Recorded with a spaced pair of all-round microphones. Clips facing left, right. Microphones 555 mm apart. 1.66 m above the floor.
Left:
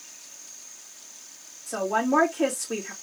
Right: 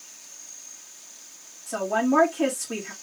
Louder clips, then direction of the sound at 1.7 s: Right 2 dB; 25° right (ahead or behind).